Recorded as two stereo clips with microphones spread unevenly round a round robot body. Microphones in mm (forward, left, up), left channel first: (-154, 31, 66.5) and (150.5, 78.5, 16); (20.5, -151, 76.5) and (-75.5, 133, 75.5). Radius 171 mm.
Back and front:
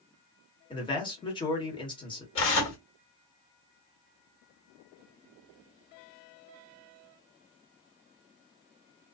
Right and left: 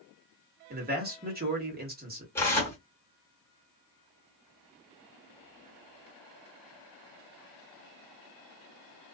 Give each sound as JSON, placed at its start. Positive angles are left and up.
{"t": 0.7, "sound": "a man speaking", "azimuth_deg": 110, "distance_m": 1.4}
{"t": 2.4, "sound": "tearing paper", "azimuth_deg": -150, "distance_m": 1.6}